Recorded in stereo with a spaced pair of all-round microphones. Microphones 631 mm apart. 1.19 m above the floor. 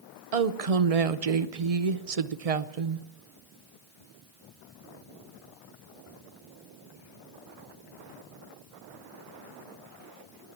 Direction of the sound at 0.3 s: 65° right (ahead or behind).